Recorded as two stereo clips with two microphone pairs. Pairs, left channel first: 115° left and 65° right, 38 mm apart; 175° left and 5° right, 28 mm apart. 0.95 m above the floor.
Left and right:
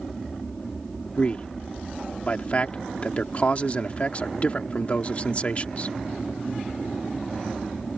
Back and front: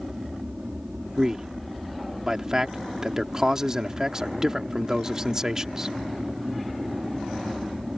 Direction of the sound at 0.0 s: 40° left.